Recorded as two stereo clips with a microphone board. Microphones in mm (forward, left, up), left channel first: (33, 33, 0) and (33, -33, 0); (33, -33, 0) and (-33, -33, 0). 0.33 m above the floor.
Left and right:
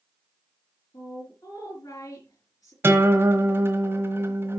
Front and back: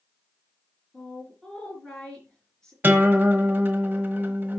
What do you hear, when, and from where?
0.9 s a woman speaking: 80° left, 4 m
2.8 s a guitar: 125° right, 1.1 m